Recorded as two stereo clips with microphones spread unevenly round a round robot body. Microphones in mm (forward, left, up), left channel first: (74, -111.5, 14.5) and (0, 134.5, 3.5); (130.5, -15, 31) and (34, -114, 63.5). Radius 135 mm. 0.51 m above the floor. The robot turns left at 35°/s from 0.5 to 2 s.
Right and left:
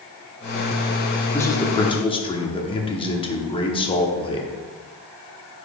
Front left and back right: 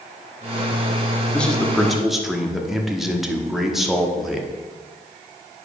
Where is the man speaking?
Straight ahead, 1.2 m; by 4.5 s 20° right, 1.2 m.